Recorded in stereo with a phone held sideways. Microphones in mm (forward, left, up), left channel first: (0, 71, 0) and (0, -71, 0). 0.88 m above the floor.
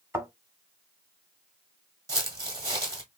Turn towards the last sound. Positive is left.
turn(degrees=-20)  # may be behind; listen again after turning